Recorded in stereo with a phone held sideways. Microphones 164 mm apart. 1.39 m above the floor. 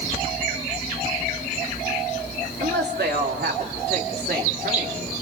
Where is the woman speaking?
85° right, 3 m; by 5.1 s 75° right (ahead or behind), 3.5 m.